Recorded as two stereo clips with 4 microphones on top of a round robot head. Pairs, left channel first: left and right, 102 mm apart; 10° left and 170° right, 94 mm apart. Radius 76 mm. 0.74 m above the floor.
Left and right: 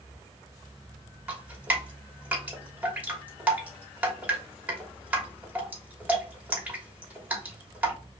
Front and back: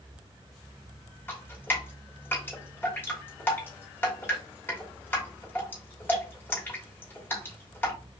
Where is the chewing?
No chewing in this recording.